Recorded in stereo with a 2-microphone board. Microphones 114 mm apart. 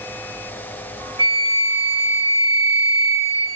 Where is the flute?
50° right (ahead or behind), 2.5 m.